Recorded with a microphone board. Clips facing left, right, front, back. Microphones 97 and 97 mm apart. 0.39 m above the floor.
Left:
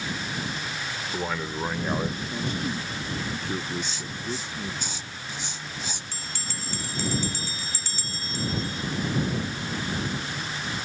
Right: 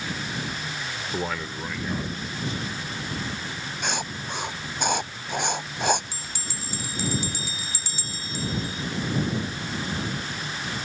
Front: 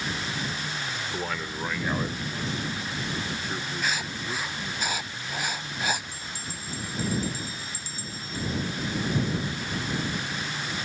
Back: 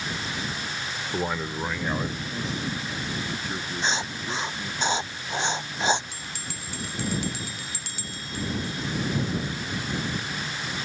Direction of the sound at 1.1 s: 140° right.